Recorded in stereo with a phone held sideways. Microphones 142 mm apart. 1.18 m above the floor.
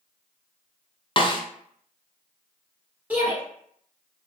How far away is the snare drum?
About 0.5 m.